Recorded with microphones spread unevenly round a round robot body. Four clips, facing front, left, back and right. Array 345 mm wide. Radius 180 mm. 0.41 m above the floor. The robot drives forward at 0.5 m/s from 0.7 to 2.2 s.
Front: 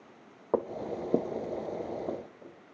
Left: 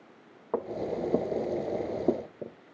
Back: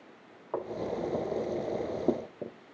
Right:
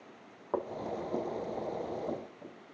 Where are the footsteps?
5° left, 1.3 m; by 2.6 s 140° left, 1.3 m.